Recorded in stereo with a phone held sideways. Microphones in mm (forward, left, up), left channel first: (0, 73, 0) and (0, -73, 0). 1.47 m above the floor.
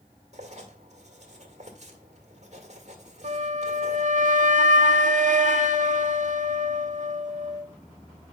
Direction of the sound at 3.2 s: 60° right (ahead or behind).